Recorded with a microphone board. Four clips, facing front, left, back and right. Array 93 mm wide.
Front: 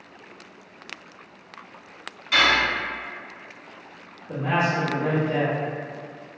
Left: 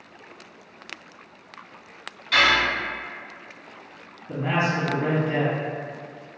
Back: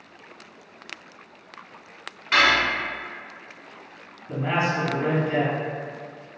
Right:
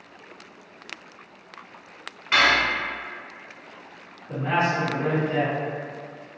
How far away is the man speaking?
About 1.8 m.